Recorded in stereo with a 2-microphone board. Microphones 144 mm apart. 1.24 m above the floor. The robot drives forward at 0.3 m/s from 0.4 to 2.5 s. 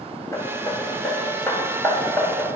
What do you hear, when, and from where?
0.3 s hammering: 20° left (ahead or behind), 1.6 m; by 2.5 s 15° left (ahead or behind), 2 m